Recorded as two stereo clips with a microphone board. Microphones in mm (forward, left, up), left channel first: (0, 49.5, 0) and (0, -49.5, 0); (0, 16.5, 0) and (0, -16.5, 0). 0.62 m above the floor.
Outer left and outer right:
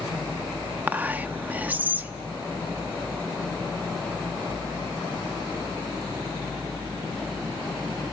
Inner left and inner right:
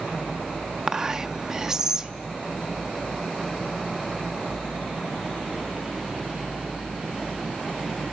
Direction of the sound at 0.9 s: 15° right (ahead or behind).